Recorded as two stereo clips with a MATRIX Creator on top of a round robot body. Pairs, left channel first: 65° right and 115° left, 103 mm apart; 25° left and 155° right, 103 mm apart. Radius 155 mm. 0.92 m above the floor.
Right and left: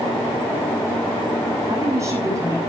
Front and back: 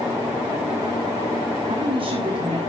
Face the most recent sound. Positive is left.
turn(degrees=170)